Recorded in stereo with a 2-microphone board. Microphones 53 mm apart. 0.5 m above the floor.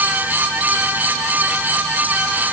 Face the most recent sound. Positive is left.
No sound to turn to.